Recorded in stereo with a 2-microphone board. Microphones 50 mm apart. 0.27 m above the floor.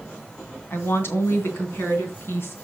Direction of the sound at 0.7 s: 55° left (ahead or behind).